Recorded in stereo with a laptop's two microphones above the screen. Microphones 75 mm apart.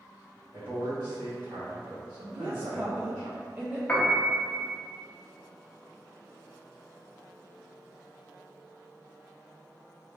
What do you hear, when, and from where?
0.5 s a man speaking: 80° right, 1.2 m
2.3 s a woman speaking: 25° right (ahead or behind), 0.6 m
3.9 s a piano: 20° left (ahead or behind), 0.7 m